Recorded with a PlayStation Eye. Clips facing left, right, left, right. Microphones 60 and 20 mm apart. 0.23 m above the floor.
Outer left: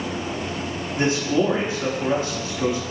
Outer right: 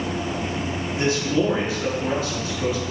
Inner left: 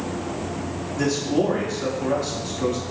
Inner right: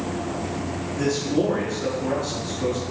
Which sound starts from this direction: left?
A man speaking, at 1.0 s.